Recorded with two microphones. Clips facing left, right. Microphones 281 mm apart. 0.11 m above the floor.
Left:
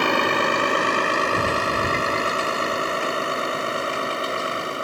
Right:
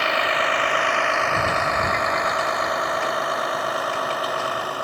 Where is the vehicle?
55° left (ahead or behind); by 4.8 s 25° left (ahead or behind).